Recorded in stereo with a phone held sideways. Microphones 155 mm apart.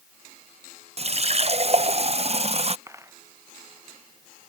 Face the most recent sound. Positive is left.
turn(degrees=-20)  # may be behind; listen again after turning